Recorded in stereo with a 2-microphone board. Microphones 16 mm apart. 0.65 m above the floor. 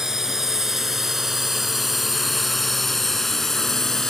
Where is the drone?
30° right (ahead or behind); by 4.1 s 30° left (ahead or behind).